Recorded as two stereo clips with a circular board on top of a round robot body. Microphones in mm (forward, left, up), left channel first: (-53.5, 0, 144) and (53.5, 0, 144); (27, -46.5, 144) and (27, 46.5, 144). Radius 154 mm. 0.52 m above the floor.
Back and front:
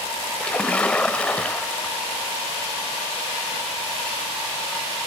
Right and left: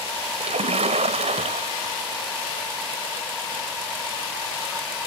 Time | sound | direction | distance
0.4 | a splash | 100° left | ?